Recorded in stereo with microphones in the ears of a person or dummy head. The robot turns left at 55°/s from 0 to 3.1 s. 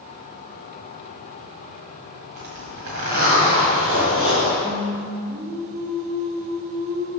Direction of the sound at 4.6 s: 50° right (ahead or behind).